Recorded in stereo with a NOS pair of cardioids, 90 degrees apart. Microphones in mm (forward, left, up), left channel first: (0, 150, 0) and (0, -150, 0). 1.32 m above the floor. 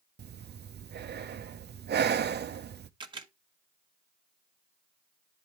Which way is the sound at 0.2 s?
35° right.